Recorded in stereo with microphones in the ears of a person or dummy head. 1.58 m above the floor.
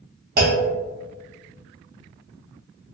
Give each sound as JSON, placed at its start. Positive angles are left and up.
{"t": 0.4, "sound": "a clunk", "side_deg": -60, "distance_m": 0.7}